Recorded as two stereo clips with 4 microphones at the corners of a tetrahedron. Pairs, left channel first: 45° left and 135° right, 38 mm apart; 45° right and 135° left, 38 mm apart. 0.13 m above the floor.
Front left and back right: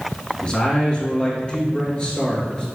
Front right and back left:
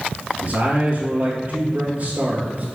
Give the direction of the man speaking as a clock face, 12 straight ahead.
8 o'clock.